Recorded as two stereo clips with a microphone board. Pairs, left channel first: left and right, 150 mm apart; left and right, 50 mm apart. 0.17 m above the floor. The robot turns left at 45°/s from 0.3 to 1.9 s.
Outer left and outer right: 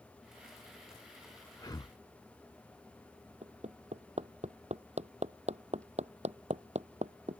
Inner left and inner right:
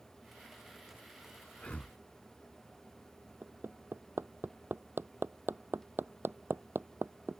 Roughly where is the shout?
I don't hear a shout.